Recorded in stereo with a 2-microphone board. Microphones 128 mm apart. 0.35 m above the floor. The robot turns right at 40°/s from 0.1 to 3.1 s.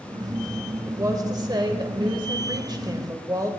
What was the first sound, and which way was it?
A woman speaking, 140° right.